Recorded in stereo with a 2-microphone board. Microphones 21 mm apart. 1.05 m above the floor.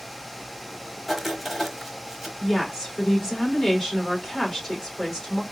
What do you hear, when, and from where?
1.1 s writing: centre (ahead or behind), 1.0 m
2.4 s a woman speaking: 20° left (ahead or behind), 2.5 m